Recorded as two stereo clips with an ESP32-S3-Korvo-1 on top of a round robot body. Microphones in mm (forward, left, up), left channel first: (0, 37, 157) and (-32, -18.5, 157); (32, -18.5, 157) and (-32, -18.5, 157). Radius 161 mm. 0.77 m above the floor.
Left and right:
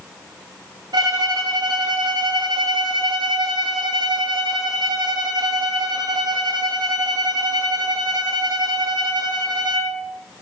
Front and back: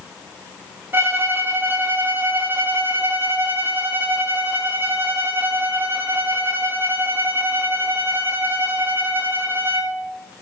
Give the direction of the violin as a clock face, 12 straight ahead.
4 o'clock.